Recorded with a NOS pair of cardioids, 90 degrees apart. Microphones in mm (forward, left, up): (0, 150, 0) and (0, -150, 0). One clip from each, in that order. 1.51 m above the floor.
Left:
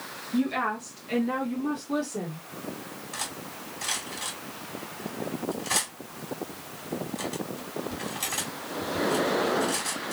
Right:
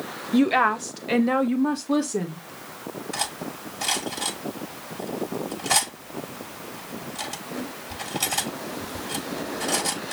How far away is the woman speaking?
About 0.9 m.